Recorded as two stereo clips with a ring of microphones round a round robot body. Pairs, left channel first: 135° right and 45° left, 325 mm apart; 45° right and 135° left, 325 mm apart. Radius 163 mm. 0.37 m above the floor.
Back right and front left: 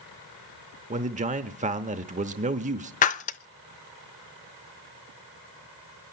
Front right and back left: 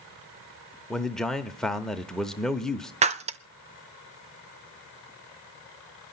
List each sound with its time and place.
0.9 s a man speaking: 40° left, 0.8 m
3.0 s breaking glass: 175° right, 0.6 m